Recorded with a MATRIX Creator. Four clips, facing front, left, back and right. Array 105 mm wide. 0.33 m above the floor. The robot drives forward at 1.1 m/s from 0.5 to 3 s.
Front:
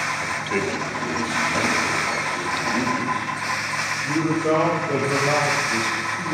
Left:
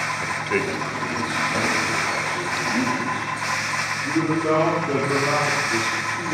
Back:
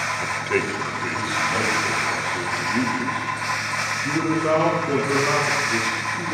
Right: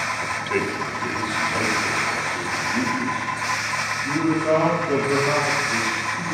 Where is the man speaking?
150° left, 0.9 m; by 6.3 s 175° left, 3 m.